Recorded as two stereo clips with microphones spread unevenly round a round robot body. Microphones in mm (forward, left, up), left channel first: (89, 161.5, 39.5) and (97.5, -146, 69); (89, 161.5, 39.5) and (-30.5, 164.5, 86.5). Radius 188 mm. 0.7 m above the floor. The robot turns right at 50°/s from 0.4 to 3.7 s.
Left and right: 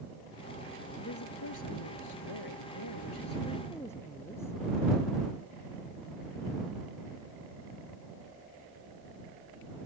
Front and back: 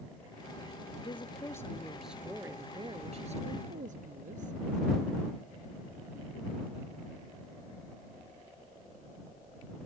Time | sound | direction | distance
1.0 | a woman speaking | 40° left | ?